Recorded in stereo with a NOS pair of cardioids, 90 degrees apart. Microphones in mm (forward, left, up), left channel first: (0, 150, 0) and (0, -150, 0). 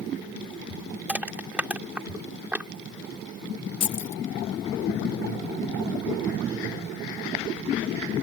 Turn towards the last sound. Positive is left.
turn(degrees=55)